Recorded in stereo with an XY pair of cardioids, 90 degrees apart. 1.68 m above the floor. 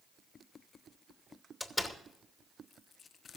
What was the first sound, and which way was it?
A door slam, 15° left.